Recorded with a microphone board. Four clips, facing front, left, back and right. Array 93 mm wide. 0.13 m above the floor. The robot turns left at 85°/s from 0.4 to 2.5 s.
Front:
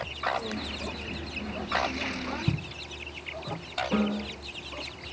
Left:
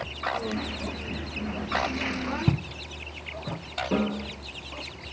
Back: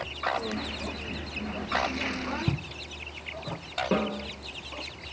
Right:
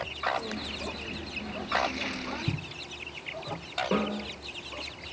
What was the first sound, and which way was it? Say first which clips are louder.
Footsteps: left 7 dB, even; 95° left.